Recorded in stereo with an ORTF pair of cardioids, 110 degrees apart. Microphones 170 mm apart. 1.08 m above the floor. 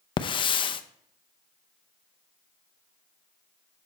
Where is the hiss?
30° left, 0.6 m.